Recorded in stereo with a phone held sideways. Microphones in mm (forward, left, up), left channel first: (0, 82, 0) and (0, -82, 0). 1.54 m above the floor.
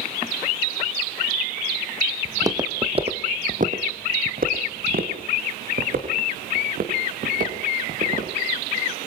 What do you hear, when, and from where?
2.2 s footsteps: 15° right (ahead or behind), 2.5 m; by 8.3 s 50° right (ahead or behind), 8 m